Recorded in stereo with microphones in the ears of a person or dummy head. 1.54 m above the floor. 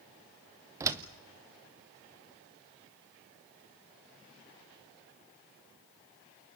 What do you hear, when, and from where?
0.8 s a door slam: 20° right (ahead or behind), 1.0 m